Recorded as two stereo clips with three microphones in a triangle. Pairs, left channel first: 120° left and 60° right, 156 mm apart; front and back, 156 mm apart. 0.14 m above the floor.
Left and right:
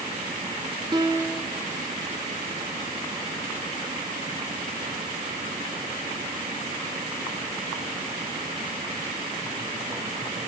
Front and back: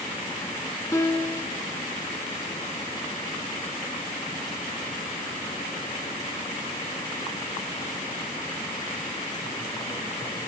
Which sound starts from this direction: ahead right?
A piano, at 0.9 s.